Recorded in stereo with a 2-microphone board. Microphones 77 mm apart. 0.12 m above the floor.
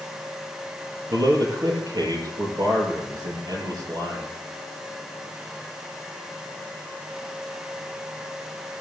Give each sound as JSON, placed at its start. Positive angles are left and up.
{"t": 1.1, "sound": "a man speaking", "side_deg": -60, "distance_m": 3.0}